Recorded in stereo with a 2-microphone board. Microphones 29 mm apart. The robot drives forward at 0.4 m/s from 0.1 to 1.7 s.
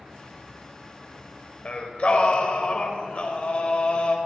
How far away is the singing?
About 0.9 m.